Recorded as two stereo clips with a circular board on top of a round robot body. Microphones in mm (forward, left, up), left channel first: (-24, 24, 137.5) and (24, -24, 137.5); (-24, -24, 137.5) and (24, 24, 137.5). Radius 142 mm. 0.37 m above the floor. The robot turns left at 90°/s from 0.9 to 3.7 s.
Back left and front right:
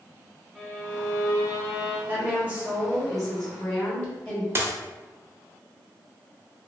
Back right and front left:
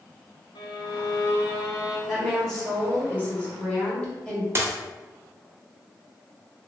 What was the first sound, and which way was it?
A violin, 140° right.